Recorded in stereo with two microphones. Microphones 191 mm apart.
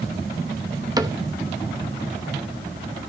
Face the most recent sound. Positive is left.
turn(degrees=-20)  # may be behind; listen again after turning